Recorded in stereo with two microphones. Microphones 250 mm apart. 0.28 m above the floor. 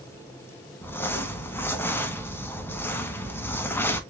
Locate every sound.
0.8 s crumpling: 10° left (ahead or behind), 0.6 m